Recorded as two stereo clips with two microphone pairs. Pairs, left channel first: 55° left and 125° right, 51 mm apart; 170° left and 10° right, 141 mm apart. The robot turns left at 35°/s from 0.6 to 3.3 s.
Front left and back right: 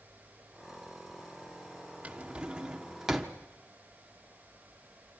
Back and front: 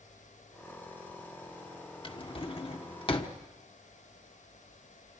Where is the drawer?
165° right, 1.1 m; by 3.3 s 150° left, 1.1 m.